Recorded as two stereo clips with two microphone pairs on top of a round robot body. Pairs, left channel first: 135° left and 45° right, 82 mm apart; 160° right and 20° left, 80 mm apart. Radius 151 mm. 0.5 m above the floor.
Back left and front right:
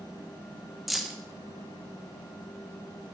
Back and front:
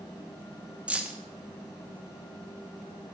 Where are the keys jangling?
55° left, 0.6 m.